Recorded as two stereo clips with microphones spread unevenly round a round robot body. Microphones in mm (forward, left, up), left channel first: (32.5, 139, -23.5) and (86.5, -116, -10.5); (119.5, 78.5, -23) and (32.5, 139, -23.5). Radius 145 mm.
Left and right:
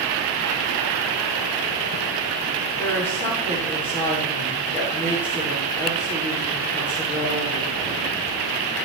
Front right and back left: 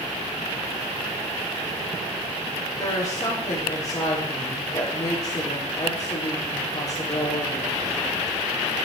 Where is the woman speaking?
20° left, 7 m.